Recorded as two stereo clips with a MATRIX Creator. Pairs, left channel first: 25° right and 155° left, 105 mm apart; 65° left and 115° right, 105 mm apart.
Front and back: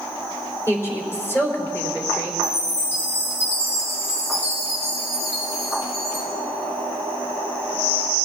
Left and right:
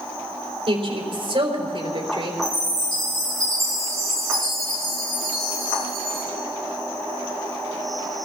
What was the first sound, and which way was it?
A woman speaking, 85° right.